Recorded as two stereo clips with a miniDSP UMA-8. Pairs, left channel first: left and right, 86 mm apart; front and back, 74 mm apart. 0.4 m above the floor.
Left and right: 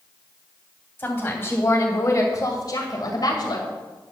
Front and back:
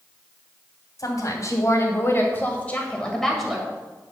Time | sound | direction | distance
1.0 | a woman speaking | 25° left | 3 m